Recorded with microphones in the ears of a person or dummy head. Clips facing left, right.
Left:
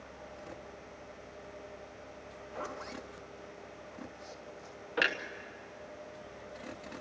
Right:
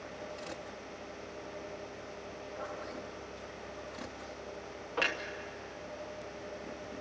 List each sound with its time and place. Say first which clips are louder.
2.3 s a zipper: left 1 dB; 65° left (ahead or behind), 1.5 m
5.0 s a clunk: left 1 dB; 15° left (ahead or behind), 1.1 m